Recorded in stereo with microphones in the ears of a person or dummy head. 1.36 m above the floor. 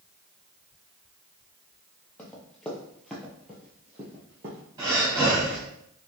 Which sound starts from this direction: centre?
Running footsteps, at 2.2 s.